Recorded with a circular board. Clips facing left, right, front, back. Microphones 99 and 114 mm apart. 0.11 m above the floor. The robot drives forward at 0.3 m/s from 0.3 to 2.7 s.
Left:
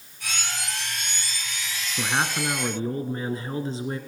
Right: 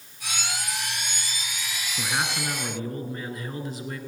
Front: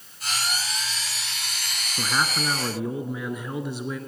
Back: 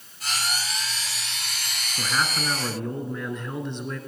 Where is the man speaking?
55° left, 1.2 m; by 4.0 s 75° left, 1.2 m.